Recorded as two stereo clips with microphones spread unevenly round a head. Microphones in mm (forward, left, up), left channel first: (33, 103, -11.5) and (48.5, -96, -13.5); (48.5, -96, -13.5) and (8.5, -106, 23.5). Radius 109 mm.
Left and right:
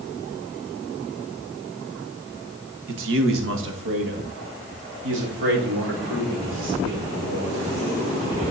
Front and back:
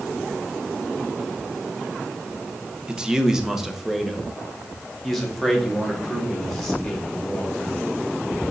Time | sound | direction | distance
2.9 | a man speaking | 80° right | 1.2 m